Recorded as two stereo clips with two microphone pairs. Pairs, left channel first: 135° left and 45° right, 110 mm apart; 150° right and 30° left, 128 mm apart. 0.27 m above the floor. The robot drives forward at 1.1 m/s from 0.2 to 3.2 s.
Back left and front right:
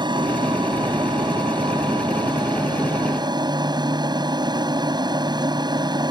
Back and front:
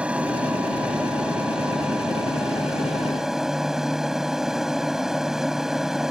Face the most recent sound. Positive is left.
turn(degrees=-55)